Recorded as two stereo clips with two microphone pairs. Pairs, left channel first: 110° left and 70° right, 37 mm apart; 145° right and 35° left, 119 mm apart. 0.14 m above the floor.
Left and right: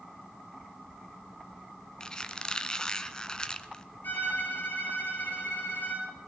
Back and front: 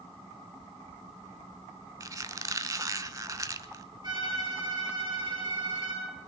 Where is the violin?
80° left, 8.5 m.